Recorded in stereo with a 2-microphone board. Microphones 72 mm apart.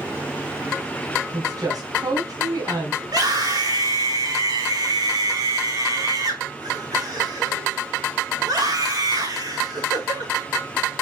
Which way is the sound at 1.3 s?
70° right (ahead or behind).